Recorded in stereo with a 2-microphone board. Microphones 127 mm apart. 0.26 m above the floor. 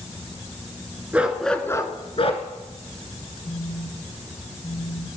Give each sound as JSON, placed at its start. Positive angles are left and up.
{"t": 1.1, "sound": "a dog barking", "side_deg": -15, "distance_m": 1.5}
{"t": 3.5, "sound": "a phone buzzing", "side_deg": 30, "distance_m": 1.4}